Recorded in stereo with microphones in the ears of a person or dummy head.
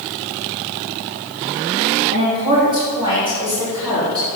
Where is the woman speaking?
35° right (ahead or behind), 3.5 m; by 4.3 s 25° right (ahead or behind), 4.5 m.